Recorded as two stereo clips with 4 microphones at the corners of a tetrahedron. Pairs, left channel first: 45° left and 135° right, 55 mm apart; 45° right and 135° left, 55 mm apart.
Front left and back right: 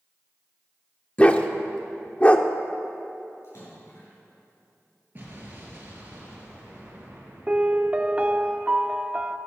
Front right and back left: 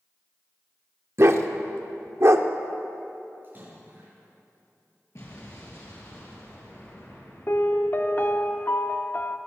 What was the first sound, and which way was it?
A dog barking, 110° left.